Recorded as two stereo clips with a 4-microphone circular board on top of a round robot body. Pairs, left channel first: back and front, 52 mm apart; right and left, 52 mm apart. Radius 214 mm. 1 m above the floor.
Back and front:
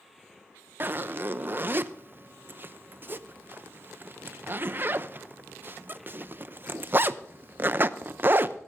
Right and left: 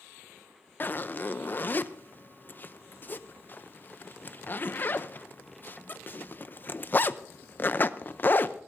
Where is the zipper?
45° right, 0.6 m.